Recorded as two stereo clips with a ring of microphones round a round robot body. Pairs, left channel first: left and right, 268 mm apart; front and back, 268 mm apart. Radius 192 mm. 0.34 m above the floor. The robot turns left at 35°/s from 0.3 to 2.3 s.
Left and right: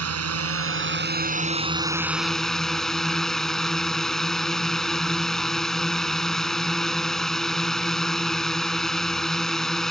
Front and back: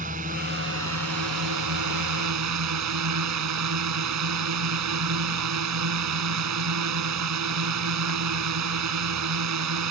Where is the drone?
110° right; by 9.9 s straight behind.